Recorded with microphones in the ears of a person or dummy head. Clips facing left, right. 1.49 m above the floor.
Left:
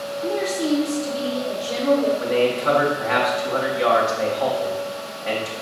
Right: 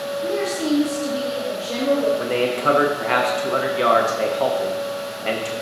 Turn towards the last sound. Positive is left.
turn(degrees=-45)  # may be behind; listen again after turning